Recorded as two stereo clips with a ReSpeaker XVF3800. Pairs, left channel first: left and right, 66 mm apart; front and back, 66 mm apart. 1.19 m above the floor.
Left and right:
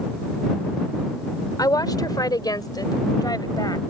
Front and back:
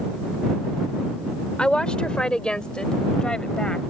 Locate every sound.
1.6 s a woman speaking: 75° left; by 3.8 s 80° left